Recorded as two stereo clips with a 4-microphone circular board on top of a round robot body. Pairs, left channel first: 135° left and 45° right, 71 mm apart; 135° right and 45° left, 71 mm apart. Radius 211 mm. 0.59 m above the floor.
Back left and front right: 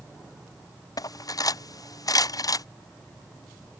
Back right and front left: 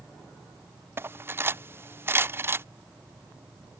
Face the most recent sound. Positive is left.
turn(degrees=100)